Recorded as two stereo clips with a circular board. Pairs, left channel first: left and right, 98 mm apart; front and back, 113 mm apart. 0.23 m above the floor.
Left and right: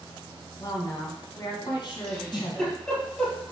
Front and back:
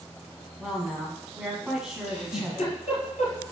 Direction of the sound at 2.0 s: 10° left.